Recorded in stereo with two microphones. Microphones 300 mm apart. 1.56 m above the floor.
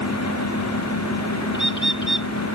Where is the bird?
35° left (ahead or behind).